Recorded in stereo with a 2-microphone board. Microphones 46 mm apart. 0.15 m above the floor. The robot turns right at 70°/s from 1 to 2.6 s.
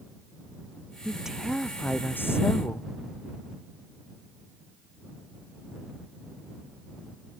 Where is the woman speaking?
25° right; by 2.9 s 85° left.